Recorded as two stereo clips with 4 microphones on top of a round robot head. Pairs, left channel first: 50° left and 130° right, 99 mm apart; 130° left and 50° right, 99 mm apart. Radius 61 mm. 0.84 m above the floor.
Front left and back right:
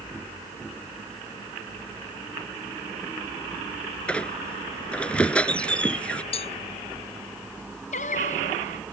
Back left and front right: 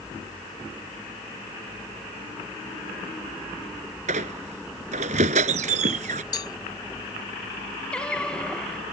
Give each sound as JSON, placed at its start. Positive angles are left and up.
{"t": 4.1, "sound": "a squeak", "azimuth_deg": -30}
{"t": 6.3, "sound": "a cowbell", "azimuth_deg": 75}
{"t": 7.9, "sound": "singing", "azimuth_deg": 50}